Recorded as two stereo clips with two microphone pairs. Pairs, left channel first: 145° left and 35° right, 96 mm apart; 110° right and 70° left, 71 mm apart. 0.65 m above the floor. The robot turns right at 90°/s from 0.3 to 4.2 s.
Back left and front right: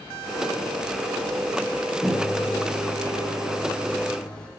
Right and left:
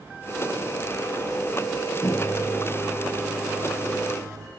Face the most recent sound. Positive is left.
turn(degrees=70)